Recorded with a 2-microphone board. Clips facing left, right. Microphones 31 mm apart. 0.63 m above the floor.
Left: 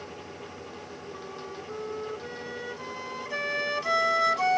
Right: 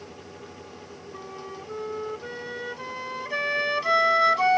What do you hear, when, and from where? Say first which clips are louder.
1.1 s a flute: right 3 dB; 20° right (ahead or behind)